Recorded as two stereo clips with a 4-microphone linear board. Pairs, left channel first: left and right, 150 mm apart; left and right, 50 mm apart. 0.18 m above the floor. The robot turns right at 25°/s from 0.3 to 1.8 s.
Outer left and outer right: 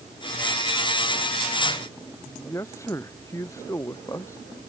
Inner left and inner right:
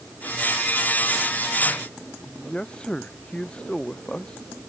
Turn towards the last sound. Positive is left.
turn(degrees=20)  # may be behind; listen again after turning